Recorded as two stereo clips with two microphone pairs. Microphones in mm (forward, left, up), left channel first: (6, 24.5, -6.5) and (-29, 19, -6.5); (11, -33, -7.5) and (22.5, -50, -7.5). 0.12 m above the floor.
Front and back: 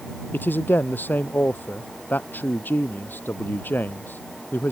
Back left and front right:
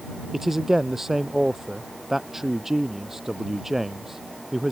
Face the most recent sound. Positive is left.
turn(degrees=20)